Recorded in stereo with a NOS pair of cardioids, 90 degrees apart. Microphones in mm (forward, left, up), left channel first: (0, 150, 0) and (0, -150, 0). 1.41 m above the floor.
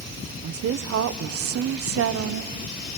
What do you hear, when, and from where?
0.4 s a woman speaking: 50° right, 1.0 m